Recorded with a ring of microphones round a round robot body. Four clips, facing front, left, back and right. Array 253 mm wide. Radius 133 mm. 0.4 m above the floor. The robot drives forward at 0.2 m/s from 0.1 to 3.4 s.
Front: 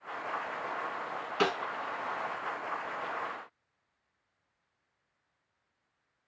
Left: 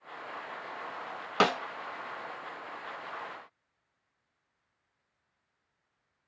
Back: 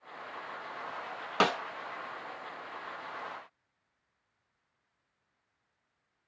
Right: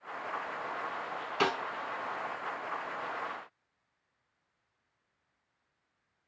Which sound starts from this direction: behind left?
A snare drum, at 1.4 s.